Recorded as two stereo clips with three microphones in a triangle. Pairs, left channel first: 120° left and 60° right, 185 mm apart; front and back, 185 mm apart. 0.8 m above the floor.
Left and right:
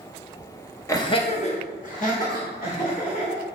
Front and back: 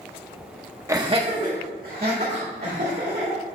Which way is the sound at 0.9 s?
150° left.